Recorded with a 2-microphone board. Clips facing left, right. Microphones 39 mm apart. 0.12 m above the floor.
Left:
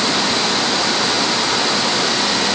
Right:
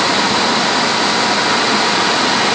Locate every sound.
Only background noise.